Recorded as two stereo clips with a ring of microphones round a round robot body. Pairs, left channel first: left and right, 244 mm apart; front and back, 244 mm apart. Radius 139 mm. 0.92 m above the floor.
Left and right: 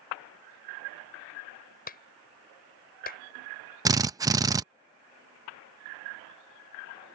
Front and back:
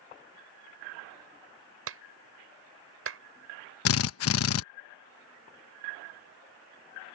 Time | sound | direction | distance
1.9 | a clap | 150° left | ?
3.9 | a drill | 15° right | ?